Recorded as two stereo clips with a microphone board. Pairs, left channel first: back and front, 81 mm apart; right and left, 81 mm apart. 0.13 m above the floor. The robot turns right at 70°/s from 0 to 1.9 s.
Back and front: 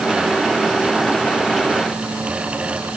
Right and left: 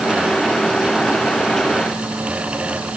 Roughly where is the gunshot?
I don't hear a gunshot.